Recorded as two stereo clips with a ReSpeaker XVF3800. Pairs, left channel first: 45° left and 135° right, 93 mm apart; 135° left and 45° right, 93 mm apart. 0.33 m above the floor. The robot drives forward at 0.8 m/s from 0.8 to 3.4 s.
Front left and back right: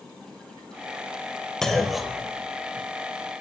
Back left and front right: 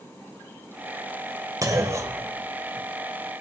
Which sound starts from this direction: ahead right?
A clunk, at 1.6 s.